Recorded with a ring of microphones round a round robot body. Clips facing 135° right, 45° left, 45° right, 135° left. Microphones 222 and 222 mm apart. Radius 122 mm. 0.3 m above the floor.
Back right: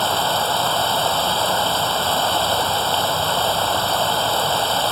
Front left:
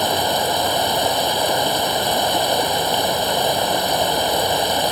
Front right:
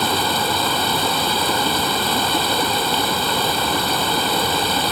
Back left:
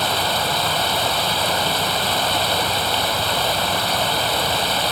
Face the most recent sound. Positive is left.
turn(degrees=-30)